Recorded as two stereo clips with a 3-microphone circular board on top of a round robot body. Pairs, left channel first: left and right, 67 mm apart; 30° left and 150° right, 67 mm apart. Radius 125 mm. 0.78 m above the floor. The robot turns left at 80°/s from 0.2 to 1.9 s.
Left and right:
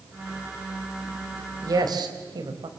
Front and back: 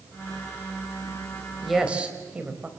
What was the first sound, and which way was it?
A woman speaking, 55° right.